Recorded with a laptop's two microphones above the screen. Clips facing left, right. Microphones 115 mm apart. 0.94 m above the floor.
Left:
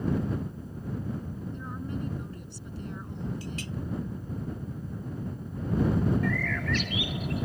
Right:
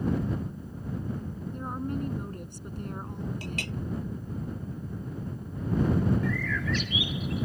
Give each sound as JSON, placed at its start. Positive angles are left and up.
{"t": 1.5, "sound": "a woman speaking", "side_deg": -50}
{"t": 3.4, "sound": "a clink", "side_deg": -65}
{"t": 6.2, "sound": "a bird", "side_deg": 65}